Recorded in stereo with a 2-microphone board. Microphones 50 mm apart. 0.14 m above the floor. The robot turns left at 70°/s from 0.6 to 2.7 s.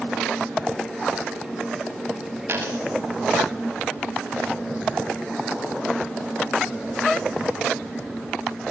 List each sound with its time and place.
2.5 s a dropped coin: 50° right (ahead or behind), 7 m; by 2.8 s 65° right (ahead or behind), 7 m